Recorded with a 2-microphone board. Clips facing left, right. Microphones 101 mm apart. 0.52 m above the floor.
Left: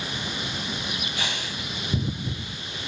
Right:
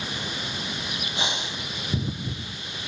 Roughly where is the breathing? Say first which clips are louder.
Right 2 dB; right.